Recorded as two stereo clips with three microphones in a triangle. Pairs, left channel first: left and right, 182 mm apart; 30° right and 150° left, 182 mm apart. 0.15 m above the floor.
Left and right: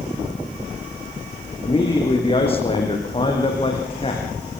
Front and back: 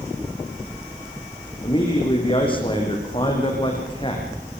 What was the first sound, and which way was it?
A man speaking, 30° left.